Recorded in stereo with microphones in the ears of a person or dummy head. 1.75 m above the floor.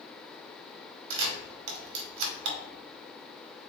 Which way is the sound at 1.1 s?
65° right (ahead or behind).